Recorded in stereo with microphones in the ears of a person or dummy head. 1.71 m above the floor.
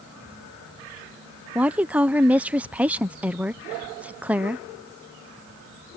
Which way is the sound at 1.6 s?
5° right (ahead or behind).